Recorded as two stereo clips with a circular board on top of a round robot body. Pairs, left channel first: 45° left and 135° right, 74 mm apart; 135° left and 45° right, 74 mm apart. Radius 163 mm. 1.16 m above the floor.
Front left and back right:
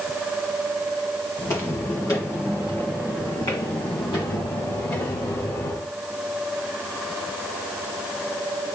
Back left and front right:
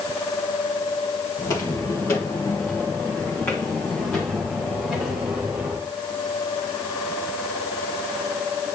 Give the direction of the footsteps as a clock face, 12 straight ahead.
9 o'clock.